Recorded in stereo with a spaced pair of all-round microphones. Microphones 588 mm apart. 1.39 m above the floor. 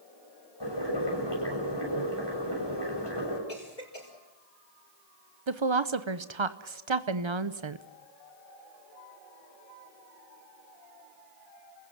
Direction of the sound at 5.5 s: 55° right (ahead or behind).